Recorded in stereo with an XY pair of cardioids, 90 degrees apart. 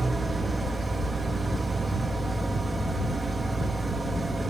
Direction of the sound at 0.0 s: 10° right.